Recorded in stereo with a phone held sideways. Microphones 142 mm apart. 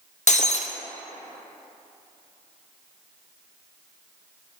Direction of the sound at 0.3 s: 60° left (ahead or behind).